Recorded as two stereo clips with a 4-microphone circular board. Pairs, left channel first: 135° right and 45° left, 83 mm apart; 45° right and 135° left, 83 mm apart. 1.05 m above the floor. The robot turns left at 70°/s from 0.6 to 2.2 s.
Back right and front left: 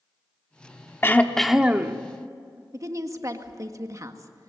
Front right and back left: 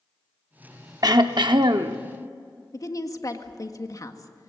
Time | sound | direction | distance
1.0 | throat clearing | 170° left | 1.0 m
2.7 | a woman speaking | straight ahead | 1.7 m